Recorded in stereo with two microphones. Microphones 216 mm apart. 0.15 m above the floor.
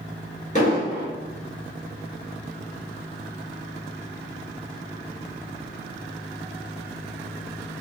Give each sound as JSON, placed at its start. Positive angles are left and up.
{"t": 0.6, "sound": "an explosion", "side_deg": 35, "distance_m": 1.1}